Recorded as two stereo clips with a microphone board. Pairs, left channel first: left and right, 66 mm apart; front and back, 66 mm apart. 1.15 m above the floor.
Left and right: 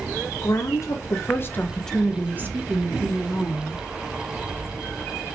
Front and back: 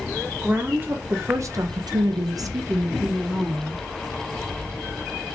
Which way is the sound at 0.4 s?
115° left.